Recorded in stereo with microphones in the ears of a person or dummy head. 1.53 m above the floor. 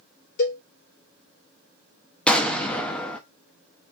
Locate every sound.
0.4 s a cowbell: 65° left (ahead or behind), 3 m
2.3 s an explosion: 5° left (ahead or behind), 0.6 m